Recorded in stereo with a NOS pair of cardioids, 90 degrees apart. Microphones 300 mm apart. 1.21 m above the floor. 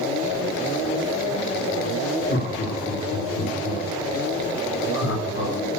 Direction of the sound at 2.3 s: 35° left.